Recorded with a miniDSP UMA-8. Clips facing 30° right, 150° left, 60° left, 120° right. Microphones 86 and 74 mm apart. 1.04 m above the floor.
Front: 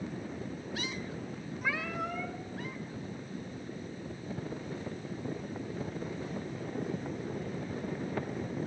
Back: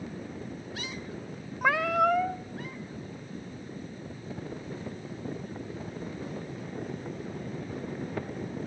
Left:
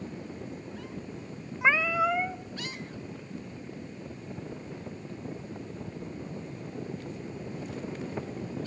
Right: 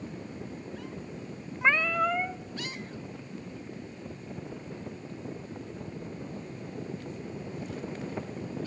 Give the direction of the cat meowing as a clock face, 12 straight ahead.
7 o'clock.